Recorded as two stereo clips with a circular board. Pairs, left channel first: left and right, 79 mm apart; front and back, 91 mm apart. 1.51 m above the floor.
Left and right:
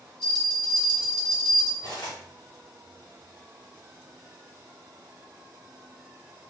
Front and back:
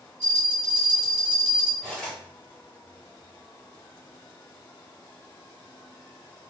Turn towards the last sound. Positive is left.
turn(degrees=85)